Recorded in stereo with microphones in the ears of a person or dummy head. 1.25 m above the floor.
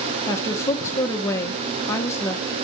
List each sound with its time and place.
0.3 s a woman speaking: 15° left (ahead or behind), 1.3 m